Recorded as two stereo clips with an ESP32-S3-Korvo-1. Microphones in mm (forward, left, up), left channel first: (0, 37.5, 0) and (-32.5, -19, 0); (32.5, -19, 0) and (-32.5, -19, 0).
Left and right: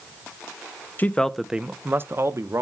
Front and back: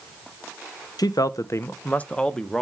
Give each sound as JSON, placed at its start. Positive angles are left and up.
{"t": 1.0, "sound": "a man speaking", "azimuth_deg": 0, "distance_m": 0.6}